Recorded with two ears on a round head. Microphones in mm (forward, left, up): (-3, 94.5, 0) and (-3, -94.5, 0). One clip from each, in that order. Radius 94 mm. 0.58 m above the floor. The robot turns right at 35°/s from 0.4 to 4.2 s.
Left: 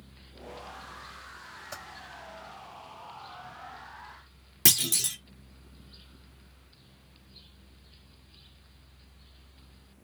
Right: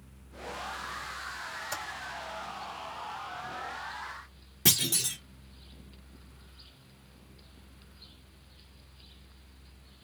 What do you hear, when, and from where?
1.7 s typing on a keyboard: 45° right (ahead or behind), 2.5 m; by 1.8 s 40° right (ahead or behind), 2.5 m
4.7 s a clunk: 30° left (ahead or behind), 1.3 m